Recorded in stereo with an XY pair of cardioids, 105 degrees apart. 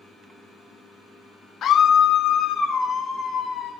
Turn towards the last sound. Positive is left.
turn(degrees=60)